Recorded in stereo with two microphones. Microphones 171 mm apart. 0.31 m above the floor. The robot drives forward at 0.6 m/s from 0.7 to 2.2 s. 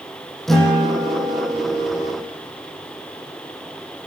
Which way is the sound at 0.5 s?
Centre (ahead or behind).